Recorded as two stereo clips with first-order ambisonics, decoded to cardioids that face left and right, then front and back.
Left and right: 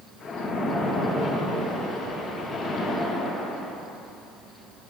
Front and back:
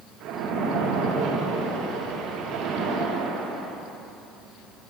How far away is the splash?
About 7.5 m.